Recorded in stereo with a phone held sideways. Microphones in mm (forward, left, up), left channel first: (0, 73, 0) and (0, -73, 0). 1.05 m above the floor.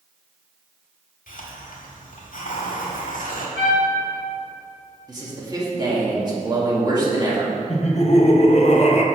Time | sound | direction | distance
1.3 | a hiss | 75° left (ahead or behind) | 1.3 m
3.6 | a trumpet | 70° right (ahead or behind) | 1.5 m
5.1 | a man speaking | 30° right (ahead or behind) | 1.7 m
7.7 | laughter | 50° left (ahead or behind) | 0.7 m